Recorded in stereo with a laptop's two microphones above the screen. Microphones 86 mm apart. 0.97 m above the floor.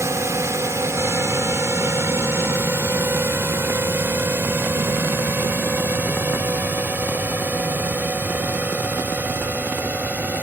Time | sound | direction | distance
0.0 | a drone | 35° right (ahead or behind) | ?